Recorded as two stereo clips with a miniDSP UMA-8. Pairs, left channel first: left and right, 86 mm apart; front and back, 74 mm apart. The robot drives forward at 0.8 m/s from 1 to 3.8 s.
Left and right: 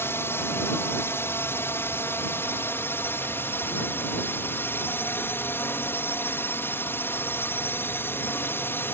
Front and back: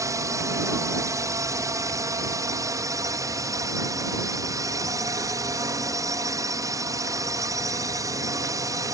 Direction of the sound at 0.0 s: 145° left.